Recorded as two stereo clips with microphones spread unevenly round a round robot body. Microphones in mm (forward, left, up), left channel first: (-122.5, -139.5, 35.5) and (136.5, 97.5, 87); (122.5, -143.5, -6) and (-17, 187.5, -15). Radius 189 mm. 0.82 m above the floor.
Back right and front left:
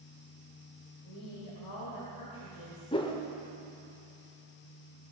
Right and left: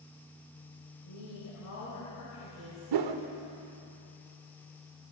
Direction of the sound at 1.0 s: 115° right.